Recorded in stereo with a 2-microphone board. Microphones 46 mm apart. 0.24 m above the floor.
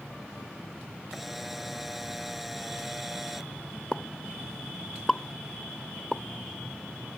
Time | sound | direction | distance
1.1 | a camera shutter | 5° right (ahead or behind) | ?
3.9 | a pop | 10° left (ahead or behind) | ?